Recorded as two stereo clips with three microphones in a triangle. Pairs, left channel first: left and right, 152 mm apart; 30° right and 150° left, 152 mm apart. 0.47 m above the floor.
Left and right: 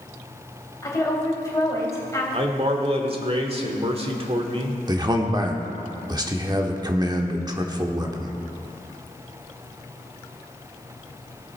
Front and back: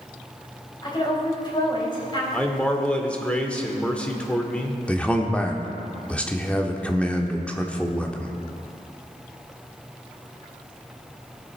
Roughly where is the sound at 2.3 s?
Right.